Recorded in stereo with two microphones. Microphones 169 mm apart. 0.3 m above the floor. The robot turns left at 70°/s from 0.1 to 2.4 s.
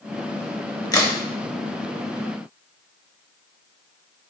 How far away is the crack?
About 0.6 m.